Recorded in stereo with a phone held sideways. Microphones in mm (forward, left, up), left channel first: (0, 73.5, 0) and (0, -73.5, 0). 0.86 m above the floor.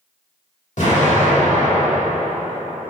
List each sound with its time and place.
0.8 s an explosion: 60° left (ahead or behind), 1.6 m